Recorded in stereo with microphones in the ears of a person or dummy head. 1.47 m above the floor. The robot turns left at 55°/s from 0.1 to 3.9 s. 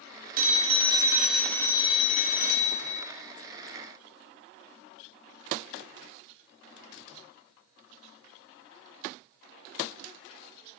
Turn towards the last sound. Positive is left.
turn(degrees=40)